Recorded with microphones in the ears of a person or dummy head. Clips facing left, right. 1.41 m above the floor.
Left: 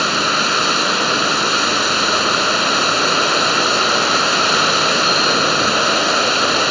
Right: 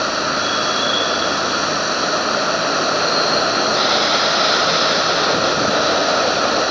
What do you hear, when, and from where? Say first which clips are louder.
0.0 s running water: even; 50° left (ahead or behind)